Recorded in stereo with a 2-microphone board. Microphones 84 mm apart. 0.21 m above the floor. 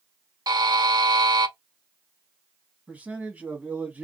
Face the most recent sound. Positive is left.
turn(degrees=-20)  # may be behind; listen again after turning